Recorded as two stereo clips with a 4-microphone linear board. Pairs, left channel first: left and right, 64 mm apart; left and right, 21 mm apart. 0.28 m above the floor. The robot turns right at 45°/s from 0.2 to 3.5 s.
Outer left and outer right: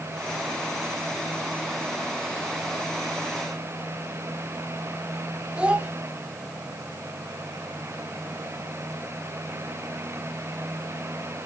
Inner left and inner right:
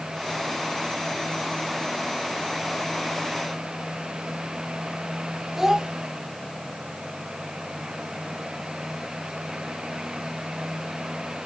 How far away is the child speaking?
About 1.2 m.